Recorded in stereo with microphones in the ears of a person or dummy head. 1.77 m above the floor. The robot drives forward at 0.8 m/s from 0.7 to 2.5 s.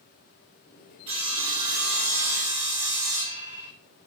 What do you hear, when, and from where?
1.1 s sawing: 30° right (ahead or behind), 4.5 m; by 3.7 s 40° right (ahead or behind), 4 m